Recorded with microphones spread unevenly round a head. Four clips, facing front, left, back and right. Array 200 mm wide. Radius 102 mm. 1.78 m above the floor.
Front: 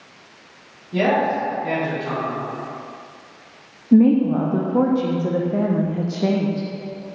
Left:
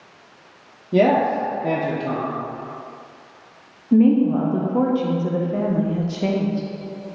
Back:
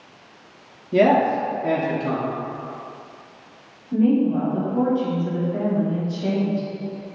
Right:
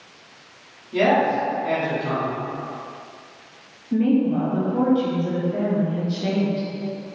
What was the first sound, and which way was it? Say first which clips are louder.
A man speaking: left 2 dB, back 3 dB; 115° left.